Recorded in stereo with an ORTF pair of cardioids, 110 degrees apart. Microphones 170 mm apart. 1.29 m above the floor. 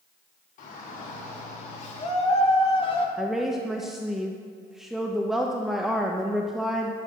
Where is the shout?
55° left, 4.5 m; by 3.1 s 30° left, 2.5 m.